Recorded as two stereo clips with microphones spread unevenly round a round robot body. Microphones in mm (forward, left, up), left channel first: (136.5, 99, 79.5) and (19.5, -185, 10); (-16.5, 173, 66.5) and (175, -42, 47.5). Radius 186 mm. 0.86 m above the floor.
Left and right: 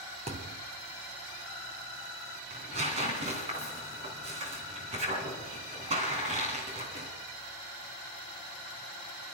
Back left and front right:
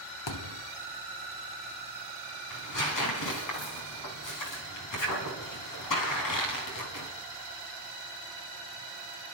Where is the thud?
170° left, 0.9 m.